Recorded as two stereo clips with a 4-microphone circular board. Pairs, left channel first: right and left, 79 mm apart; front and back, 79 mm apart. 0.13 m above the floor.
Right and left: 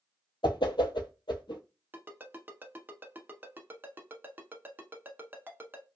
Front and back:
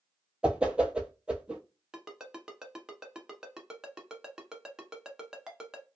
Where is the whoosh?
105° right, 0.6 m.